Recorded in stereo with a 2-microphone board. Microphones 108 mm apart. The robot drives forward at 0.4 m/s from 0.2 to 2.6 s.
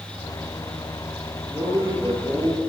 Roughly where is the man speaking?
Right.